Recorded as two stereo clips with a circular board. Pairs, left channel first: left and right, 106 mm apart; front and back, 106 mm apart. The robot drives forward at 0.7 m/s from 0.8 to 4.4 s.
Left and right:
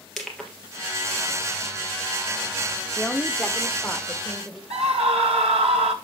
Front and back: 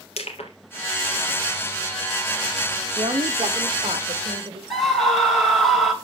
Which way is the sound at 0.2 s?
5° left.